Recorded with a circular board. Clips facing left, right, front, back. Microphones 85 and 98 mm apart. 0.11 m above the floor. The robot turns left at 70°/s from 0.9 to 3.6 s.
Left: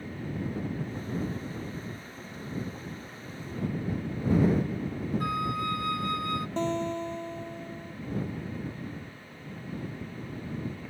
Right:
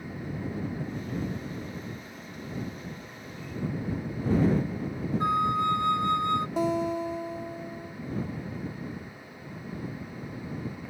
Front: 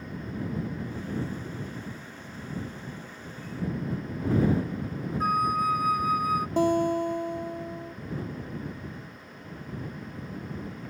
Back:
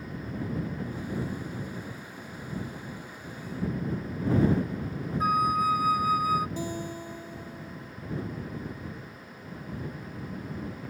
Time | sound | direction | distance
5.2 | a flute | 95° right | ?
6.6 | a guitar | 10° right | ?